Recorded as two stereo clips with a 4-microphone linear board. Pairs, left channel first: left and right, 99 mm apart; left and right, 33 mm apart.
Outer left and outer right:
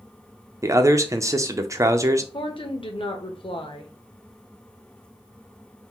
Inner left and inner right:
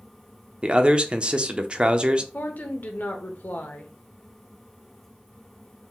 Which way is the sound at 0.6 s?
35° right (ahead or behind).